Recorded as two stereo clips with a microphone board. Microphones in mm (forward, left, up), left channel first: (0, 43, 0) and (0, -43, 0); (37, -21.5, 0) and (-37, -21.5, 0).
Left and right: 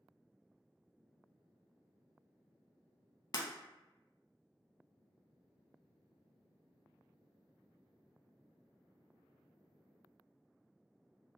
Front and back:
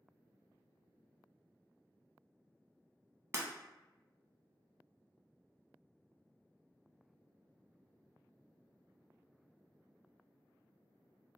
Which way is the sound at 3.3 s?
130° left.